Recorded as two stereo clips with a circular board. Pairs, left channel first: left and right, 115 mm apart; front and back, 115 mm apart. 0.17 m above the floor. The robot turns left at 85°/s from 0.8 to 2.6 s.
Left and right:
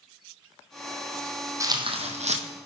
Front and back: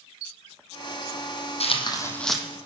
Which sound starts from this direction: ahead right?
Tearing paper, at 1.6 s.